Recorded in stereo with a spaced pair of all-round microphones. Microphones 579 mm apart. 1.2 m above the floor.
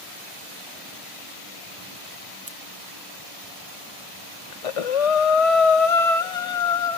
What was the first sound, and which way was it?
Scissors, 20° right (ahead or behind).